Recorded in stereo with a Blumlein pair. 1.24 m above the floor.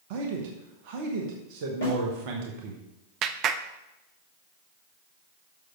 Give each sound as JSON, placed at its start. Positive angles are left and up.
{"t": 0.1, "sound": "a man speaking", "azimuth_deg": -45, "distance_m": 1.6}
{"t": 1.8, "sound": "a snare drum", "azimuth_deg": 45, "distance_m": 4.5}
{"t": 3.2, "sound": "a clap", "azimuth_deg": -35, "distance_m": 0.6}